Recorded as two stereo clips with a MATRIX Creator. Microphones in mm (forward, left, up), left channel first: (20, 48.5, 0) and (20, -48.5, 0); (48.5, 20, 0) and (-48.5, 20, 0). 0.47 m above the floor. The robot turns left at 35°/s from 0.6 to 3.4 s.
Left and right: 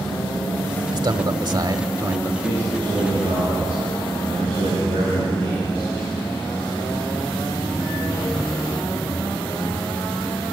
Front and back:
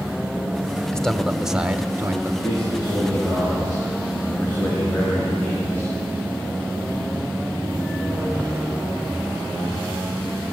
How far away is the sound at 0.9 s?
About 1.1 m.